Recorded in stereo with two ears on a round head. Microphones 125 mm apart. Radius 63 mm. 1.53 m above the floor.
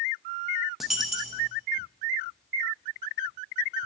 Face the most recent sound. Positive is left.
turn(degrees=0)  # may be behind; listen again after turning